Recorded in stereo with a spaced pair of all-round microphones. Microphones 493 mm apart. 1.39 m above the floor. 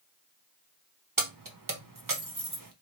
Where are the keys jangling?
40° right (ahead or behind), 0.8 m.